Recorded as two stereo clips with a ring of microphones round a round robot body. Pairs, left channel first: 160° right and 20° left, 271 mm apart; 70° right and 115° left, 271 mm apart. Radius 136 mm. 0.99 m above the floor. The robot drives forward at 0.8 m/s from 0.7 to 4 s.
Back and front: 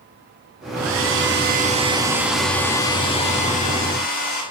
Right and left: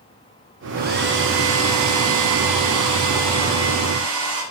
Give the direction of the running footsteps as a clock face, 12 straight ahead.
I don't hear running footsteps.